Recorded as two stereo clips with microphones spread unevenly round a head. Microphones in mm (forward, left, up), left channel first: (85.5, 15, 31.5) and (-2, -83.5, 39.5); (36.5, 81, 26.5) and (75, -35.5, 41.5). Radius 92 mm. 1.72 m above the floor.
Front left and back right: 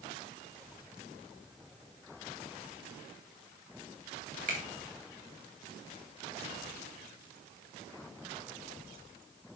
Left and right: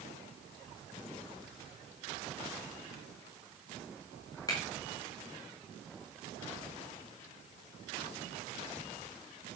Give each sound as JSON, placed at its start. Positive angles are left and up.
{"t": 4.5, "sound": "a finger snap", "azimuth_deg": -175, "distance_m": 2.0}